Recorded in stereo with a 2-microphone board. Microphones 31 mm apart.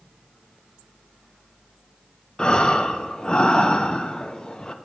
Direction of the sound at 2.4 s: 30° left (ahead or behind).